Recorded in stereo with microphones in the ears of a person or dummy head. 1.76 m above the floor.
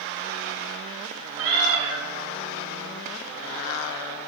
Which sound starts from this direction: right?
A cat meowing, at 1.4 s.